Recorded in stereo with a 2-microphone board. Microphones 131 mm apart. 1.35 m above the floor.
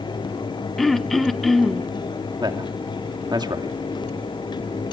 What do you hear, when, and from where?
0.8 s throat clearing: centre (ahead or behind), 1.2 m
2.4 s a man speaking: 35° right (ahead or behind), 2.5 m